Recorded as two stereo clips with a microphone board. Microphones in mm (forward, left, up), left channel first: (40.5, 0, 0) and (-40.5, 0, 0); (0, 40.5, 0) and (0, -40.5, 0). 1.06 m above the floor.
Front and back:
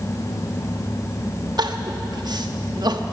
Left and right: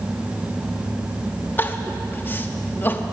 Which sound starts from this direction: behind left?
Crying, at 1.6 s.